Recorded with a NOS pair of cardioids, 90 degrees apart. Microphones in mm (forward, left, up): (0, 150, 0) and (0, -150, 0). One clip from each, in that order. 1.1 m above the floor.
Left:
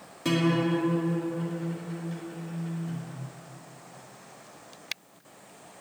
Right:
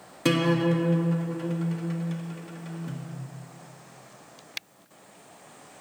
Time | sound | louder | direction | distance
0.2 | a guitar | right 2 dB | 50° right | 1.6 m